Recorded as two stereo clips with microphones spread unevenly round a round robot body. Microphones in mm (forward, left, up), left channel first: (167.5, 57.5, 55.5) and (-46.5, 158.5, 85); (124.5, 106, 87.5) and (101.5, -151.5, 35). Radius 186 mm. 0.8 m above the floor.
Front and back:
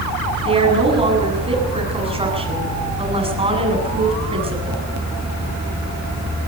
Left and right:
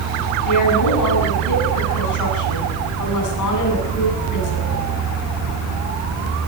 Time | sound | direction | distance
0.5 | a woman speaking | 90° left | 8 m